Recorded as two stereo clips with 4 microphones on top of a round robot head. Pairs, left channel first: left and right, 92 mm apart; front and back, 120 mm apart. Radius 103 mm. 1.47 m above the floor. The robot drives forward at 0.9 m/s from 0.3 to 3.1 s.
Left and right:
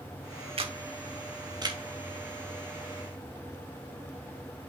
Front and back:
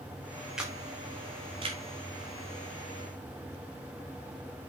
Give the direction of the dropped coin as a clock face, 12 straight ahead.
I don't hear a dropped coin.